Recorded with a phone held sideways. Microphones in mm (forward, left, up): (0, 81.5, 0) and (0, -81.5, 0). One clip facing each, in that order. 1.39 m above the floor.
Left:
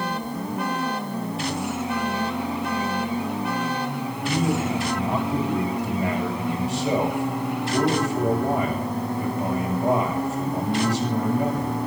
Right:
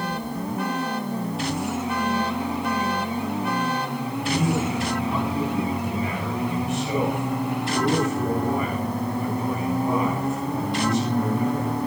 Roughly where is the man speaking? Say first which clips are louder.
Left 1 dB; left.